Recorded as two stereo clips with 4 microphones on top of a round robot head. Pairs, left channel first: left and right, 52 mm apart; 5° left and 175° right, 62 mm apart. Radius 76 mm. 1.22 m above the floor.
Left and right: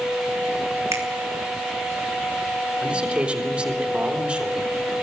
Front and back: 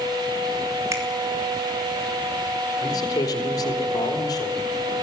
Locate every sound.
0.9 s a finger snap: 130° right, 3 m
2.8 s a man speaking: 20° right, 3.5 m